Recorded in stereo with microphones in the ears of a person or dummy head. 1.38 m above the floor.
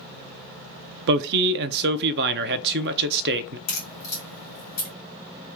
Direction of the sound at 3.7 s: 45° left (ahead or behind).